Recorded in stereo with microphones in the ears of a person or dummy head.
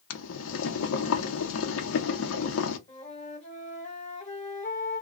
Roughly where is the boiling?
Left.